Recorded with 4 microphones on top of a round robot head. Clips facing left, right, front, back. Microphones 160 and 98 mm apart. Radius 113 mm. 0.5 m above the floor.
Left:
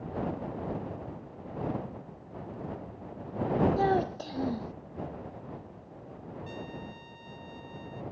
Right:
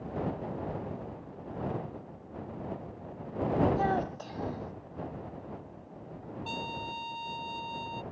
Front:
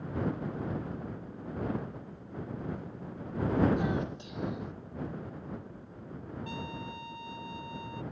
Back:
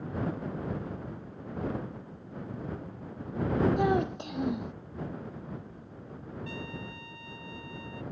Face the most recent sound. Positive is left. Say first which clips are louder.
# right 3 dB, front 1 dB
turn(degrees=-75)